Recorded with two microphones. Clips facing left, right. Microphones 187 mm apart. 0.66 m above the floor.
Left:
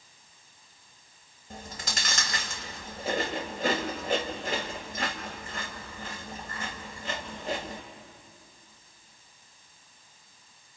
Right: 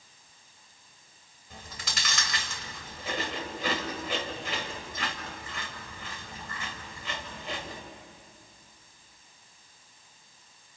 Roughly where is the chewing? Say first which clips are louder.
Left 4 dB; left.